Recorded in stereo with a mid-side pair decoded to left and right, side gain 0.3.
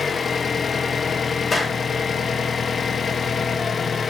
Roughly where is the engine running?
Ahead left.